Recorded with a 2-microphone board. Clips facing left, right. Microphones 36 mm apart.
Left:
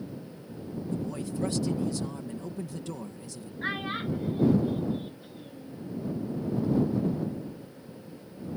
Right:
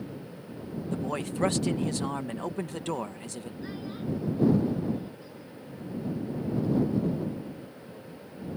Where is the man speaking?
60° right (ahead or behind).